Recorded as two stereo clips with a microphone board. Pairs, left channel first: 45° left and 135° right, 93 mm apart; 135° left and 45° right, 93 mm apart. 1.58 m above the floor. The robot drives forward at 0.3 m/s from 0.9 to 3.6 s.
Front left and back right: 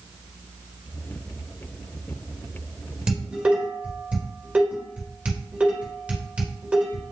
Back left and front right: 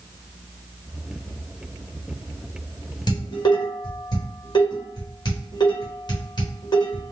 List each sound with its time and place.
3.1 s dishes clattering: 150° left, 1.2 m; by 7.1 s 155° left, 1.3 m